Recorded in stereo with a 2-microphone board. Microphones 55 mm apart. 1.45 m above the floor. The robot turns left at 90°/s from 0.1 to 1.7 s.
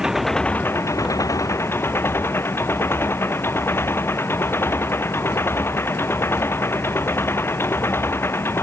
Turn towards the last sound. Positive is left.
turn(degrees=45)